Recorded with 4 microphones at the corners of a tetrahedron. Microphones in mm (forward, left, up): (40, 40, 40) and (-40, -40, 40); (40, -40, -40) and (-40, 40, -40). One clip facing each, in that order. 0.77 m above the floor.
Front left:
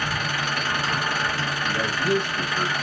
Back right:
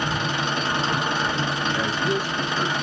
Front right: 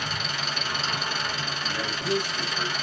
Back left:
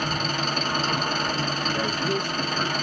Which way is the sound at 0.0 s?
160° left.